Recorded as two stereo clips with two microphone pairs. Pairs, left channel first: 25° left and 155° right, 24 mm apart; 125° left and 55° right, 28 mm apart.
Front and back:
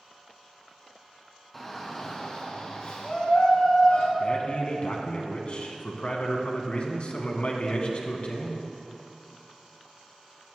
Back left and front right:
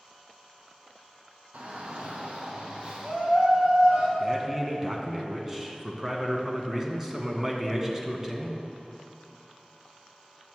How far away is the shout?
About 2.5 m.